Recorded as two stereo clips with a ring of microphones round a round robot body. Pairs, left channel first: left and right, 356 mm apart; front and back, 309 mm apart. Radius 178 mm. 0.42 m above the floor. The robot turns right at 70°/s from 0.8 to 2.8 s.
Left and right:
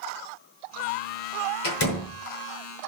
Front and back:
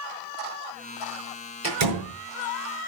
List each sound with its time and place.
1.6 s a door slam: 130° left, 6 m; by 2.1 s 165° left, 6 m